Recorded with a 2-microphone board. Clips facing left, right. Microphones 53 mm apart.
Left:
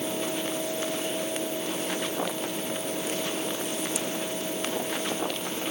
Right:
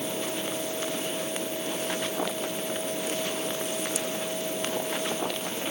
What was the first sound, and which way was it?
Only background noise.